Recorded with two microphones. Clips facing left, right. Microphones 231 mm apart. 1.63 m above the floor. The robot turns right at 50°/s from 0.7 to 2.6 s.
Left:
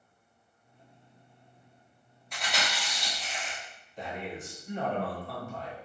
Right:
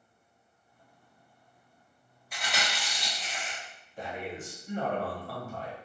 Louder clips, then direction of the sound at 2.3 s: Left 1 dB; 5° right (ahead or behind).